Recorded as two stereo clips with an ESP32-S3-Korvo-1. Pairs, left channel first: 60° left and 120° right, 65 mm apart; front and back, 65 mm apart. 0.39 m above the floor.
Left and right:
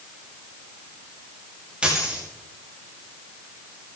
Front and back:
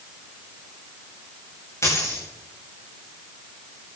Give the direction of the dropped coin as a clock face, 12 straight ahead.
2 o'clock.